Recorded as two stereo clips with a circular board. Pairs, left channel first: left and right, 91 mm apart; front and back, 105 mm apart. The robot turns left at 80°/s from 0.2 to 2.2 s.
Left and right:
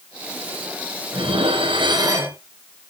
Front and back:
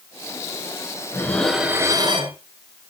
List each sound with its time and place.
1.1 s dishes clattering: 60° right, 2.5 m; by 2.4 s 145° right, 2.5 m